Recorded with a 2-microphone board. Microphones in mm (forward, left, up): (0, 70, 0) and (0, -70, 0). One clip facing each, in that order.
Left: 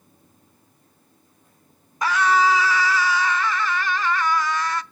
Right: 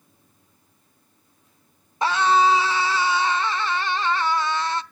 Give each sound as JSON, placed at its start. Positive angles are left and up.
{"t": 2.0, "sound": "a scream", "side_deg": -25, "distance_m": 0.8}